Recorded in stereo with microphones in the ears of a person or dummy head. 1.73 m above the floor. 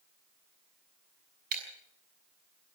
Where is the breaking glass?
45° right (ahead or behind), 6.5 m.